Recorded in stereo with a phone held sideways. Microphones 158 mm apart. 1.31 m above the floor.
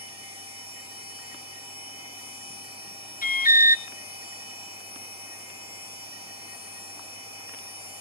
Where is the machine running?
35° left (ahead or behind), 8.5 m.